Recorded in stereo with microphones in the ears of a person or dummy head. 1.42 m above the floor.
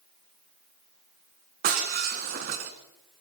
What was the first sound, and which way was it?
Breaking glass, 50° right (ahead or behind).